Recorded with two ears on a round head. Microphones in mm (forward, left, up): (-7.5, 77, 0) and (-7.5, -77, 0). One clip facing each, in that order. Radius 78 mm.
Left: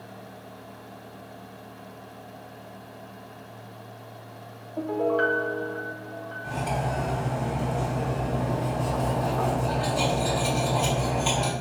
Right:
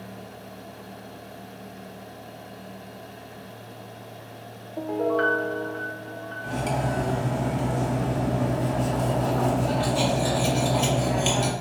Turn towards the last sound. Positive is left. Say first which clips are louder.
# right 2 dB
turn(degrees=-65)  # may be behind; listen again after turning